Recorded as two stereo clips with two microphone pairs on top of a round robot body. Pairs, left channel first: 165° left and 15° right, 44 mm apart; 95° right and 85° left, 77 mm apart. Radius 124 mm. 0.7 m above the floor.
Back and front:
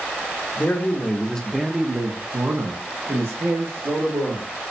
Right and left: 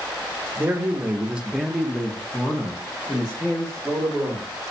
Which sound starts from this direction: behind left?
A man speaking, at 0.6 s.